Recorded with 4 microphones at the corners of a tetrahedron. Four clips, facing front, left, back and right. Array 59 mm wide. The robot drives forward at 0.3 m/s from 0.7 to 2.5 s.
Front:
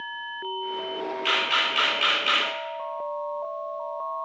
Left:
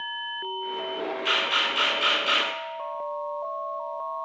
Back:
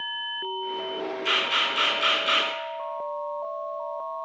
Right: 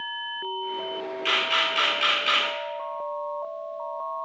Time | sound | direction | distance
1.2 | a camera shutter | 35° right | 1.5 m